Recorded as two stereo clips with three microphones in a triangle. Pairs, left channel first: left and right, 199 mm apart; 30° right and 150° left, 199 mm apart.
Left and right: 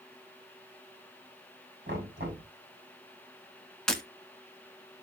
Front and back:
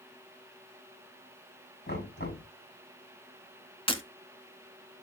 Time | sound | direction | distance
1.9 | knocking | 55° right | 6 m
3.9 | breaking glass | 5° left | 1.4 m